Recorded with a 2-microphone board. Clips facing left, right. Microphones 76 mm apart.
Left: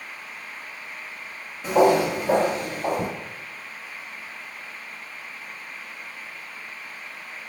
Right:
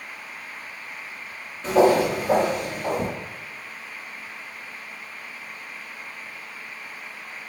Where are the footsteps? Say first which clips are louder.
Even; 10° left (ahead or behind), 1.3 m; by 3.1 s 45° left (ahead or behind), 1.3 m.